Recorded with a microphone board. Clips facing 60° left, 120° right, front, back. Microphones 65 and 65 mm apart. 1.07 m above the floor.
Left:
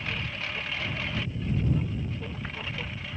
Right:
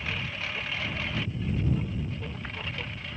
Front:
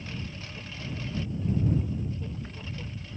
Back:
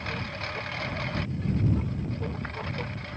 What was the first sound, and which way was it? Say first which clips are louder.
A lawn mower: even, back 6 dB; 150° left.